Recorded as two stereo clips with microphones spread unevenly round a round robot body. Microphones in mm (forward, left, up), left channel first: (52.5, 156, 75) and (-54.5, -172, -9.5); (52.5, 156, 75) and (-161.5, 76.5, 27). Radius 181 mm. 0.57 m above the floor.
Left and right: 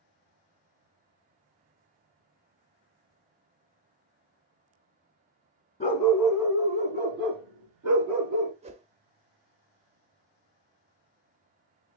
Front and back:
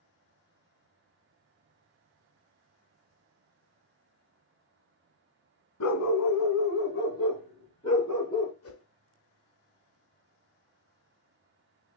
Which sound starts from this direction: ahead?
A dog barking, at 5.8 s.